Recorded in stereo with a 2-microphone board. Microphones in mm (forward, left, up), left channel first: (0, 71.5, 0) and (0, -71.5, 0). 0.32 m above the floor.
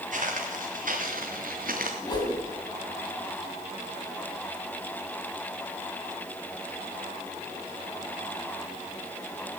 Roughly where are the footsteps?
Right.